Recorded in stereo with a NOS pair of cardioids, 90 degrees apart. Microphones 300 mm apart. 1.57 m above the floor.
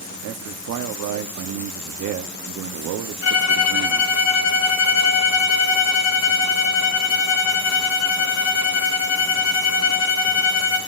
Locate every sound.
0.2 s a man speaking: 70° right, 0.8 m
3.2 s a violin: 55° left, 2.5 m